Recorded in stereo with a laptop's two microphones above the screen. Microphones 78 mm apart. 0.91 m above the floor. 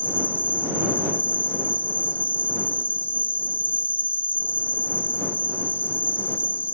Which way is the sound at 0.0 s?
25° left (ahead or behind).